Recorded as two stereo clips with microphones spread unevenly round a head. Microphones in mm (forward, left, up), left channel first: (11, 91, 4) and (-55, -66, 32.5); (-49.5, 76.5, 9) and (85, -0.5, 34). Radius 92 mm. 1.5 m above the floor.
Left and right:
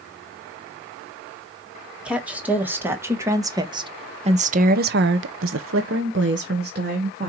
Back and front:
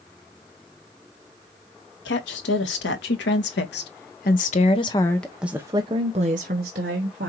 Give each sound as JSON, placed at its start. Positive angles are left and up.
{"t": 2.0, "sound": "a woman speaking", "azimuth_deg": 165, "distance_m": 2.0}